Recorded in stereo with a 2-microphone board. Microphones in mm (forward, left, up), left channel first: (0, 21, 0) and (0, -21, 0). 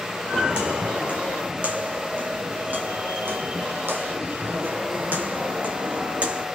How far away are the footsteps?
About 2 m.